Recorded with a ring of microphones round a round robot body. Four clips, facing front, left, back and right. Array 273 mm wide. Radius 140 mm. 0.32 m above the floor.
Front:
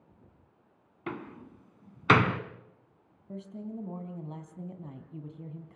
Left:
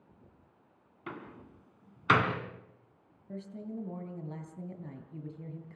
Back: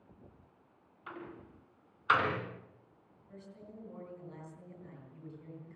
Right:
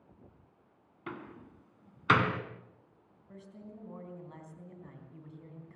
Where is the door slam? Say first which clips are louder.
Even, front 7 dB; straight ahead, 2.5 m.